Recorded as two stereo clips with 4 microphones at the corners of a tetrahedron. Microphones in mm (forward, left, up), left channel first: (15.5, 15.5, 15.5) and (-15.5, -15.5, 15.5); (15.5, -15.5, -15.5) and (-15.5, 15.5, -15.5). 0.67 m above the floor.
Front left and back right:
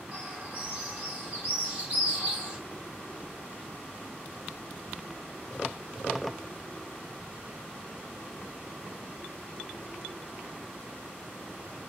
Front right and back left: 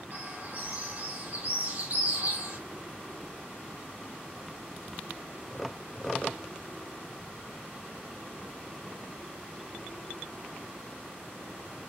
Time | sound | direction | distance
0.1 | a bird | 170° left | 2.0 m